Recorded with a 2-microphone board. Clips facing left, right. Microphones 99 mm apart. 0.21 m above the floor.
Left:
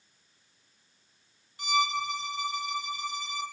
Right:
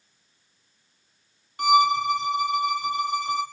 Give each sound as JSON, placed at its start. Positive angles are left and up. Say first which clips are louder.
{"t": 1.6, "sound": "a violin", "louder": "right 10 dB", "side_deg": -65, "distance_m": 2.5}